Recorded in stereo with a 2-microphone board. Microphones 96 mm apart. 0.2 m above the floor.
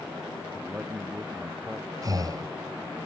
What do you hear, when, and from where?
0.5 s a man speaking: 15° right (ahead or behind)
2.0 s breathing: 40° right (ahead or behind)